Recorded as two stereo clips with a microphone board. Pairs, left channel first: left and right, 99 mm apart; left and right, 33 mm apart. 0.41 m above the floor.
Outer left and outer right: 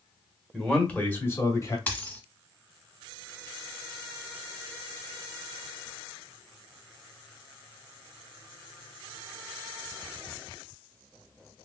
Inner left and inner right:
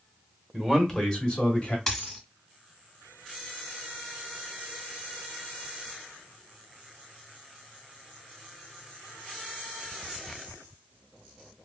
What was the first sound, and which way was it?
A man speaking, centre (ahead or behind).